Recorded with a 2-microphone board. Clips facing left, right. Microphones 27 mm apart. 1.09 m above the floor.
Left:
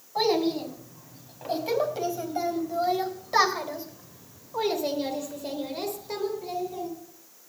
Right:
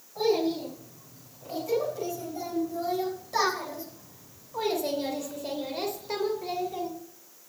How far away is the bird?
No bird in this recording.